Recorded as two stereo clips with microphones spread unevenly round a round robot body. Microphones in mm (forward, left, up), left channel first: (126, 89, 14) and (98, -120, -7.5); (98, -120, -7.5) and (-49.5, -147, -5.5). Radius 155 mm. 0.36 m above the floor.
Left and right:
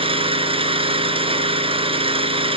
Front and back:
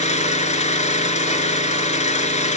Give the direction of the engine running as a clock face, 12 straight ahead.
1 o'clock.